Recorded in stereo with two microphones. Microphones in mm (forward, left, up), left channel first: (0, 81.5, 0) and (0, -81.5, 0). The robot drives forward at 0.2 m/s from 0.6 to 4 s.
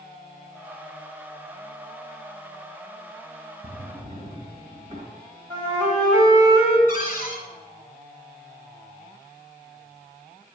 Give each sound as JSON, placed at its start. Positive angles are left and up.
{"t": 3.6, "sound": "a drawer", "side_deg": -35, "distance_m": 1.6}
{"t": 5.5, "sound": "a flute", "side_deg": -25, "distance_m": 2.0}
{"t": 6.9, "sound": "a cupboard door", "side_deg": 55, "distance_m": 2.0}